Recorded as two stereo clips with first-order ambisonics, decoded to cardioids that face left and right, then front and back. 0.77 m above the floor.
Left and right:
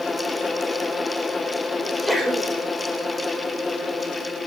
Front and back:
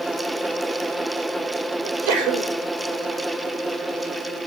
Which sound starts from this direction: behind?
A sneeze, at 1.8 s.